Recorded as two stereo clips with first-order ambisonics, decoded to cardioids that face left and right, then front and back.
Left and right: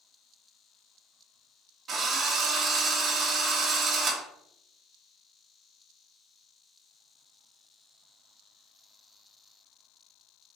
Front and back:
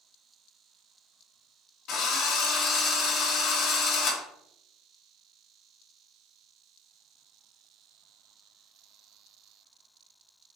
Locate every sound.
1.9 s a drill: 30° right, 1.1 m